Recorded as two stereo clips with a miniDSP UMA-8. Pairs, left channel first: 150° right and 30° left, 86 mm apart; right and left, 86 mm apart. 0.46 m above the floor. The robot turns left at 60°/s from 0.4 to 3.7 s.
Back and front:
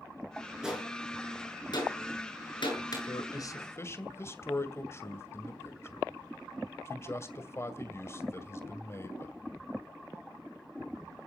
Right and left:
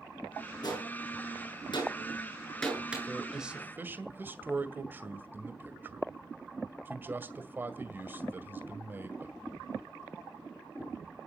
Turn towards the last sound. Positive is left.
turn(degrees=155)